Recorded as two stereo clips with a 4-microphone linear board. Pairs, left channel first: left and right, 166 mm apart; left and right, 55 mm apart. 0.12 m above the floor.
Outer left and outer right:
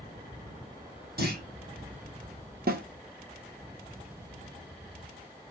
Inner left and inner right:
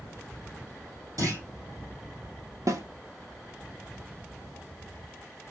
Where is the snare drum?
65° right (ahead or behind), 1.6 m.